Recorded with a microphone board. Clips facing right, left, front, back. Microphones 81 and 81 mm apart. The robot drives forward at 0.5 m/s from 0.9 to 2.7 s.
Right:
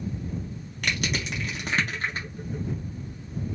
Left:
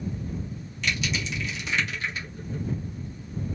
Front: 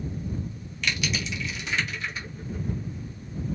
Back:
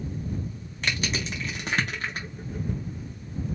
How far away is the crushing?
About 1.6 m.